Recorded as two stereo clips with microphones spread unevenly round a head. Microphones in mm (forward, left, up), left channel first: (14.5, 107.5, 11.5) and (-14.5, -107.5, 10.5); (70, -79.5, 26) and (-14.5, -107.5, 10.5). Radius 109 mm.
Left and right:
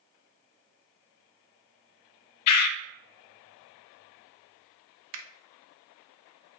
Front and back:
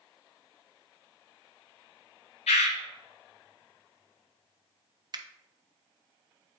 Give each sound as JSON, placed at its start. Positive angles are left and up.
{"t": 2.5, "sound": "a bird", "azimuth_deg": 65, "distance_m": 0.6}
{"t": 5.1, "sound": "a finger snap", "azimuth_deg": -120, "distance_m": 0.8}